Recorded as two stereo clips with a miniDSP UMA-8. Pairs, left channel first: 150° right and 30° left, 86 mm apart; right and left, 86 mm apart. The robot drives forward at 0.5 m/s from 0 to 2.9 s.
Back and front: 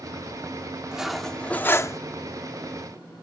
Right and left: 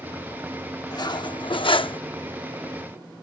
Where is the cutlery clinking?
50° right; by 2.0 s 100° right.